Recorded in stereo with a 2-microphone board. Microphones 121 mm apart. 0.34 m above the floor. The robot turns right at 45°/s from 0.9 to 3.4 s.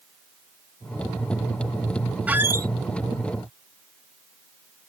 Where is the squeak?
15° right (ahead or behind); by 2.7 s 30° right (ahead or behind).